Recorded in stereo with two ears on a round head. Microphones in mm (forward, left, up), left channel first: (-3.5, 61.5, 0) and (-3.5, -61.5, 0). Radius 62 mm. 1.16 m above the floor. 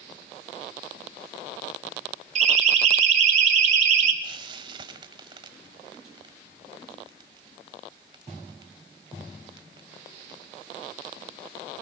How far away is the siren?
About 5.5 m.